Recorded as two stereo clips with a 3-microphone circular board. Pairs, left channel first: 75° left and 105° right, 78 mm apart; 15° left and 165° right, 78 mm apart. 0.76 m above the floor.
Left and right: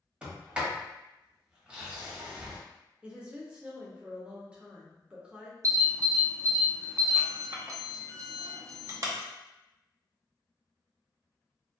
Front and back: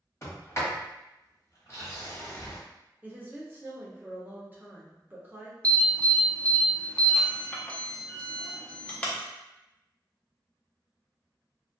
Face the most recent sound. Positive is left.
turn(degrees=-55)